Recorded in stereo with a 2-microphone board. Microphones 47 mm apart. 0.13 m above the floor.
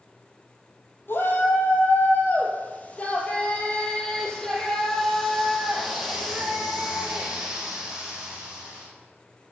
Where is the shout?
55° left (ahead or behind), 4 m; by 8.9 s 20° right (ahead or behind), 6 m.